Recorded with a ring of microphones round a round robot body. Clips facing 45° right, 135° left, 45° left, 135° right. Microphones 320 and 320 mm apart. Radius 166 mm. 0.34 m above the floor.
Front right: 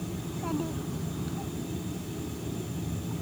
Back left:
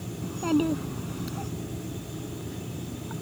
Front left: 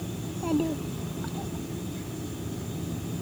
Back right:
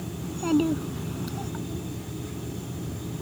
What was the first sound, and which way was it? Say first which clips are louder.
A child speaking: back left 10 dB, back right 4 dB; 170° left.